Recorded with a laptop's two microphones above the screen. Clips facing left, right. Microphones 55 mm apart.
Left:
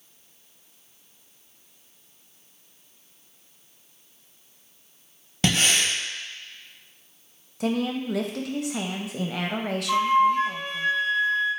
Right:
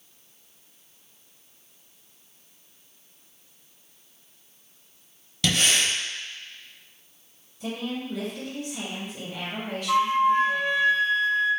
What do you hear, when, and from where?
5.4 s breathing: 35° left (ahead or behind), 0.9 m
7.6 s a woman speaking: 75° left (ahead or behind), 0.6 m
9.9 s a flute: 35° right (ahead or behind), 1.6 m